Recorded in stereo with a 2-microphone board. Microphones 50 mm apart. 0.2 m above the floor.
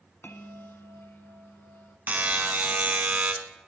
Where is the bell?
55° left (ahead or behind), 0.9 m.